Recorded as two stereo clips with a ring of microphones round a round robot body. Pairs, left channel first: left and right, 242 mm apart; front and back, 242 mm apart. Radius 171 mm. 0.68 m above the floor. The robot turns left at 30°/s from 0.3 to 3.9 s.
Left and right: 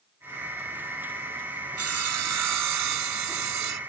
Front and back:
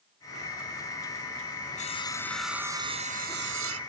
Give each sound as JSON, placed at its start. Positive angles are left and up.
{"t": 1.8, "sound": "sawing", "azimuth_deg": -70}